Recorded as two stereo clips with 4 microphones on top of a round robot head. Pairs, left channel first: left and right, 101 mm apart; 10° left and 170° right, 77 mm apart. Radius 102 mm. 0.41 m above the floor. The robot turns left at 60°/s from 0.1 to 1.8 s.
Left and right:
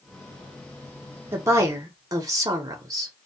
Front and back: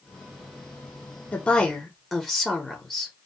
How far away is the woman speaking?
About 1.1 m.